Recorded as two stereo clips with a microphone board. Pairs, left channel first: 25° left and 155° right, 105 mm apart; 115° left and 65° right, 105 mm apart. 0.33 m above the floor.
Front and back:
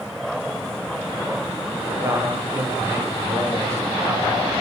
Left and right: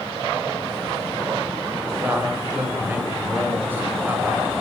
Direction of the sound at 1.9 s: 125° right.